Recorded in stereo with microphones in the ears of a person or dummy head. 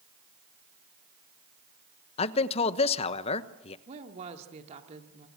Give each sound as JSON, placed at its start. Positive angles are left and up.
{"t": 2.2, "sound": "a man speaking", "side_deg": 30, "distance_m": 1.1}
{"t": 3.9, "sound": "a woman speaking", "side_deg": -40, "distance_m": 2.5}